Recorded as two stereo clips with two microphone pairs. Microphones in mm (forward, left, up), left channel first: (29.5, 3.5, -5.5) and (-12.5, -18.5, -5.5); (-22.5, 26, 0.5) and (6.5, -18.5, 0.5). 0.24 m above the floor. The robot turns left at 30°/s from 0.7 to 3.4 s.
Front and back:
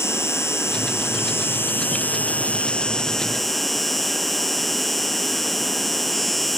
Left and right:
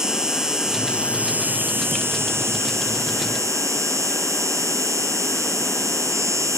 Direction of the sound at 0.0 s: 20° left.